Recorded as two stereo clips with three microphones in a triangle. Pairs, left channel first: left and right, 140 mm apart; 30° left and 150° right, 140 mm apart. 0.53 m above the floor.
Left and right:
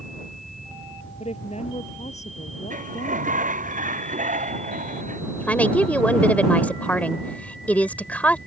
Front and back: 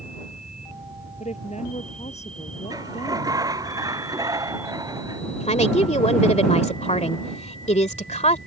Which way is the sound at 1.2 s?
55° left.